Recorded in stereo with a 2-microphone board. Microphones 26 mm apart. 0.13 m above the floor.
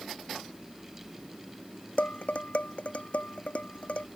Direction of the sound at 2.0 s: 60° left (ahead or behind).